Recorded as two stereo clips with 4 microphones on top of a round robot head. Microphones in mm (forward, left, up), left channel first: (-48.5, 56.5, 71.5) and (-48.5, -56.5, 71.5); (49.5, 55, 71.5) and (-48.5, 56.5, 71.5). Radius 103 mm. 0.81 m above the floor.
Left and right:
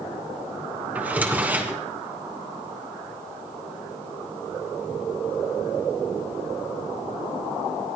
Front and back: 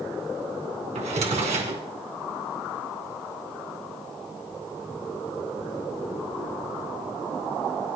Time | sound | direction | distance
0.9 | a drawer | 165° right | 3 m